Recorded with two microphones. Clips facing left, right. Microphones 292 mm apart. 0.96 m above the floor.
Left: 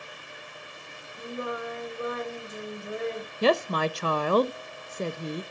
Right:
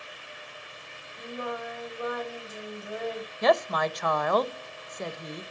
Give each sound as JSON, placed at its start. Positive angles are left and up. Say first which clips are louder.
{"t": 1.2, "sound": "singing", "louder": "left 2 dB", "side_deg": 25, "distance_m": 3.0}
{"t": 3.4, "sound": "a woman speaking", "louder": "left 1 dB", "side_deg": 35, "distance_m": 0.6}